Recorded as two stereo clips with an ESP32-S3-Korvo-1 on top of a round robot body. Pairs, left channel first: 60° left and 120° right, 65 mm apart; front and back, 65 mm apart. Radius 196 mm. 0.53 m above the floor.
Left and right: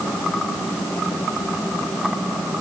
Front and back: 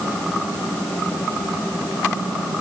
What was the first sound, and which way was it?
Only background noise.